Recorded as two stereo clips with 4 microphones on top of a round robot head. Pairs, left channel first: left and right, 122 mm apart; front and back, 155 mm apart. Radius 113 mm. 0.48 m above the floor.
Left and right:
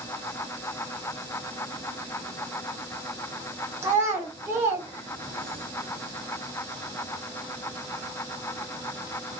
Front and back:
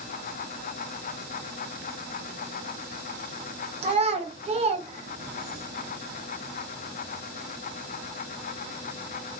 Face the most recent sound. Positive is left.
turn(degrees=-150)